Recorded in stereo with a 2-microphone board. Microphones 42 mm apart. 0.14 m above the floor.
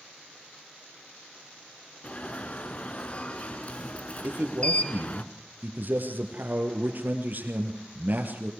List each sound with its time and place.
2.0 s an alarm: 35° left (ahead or behind), 1.2 m
4.2 s a man speaking: 50° right (ahead or behind), 3.5 m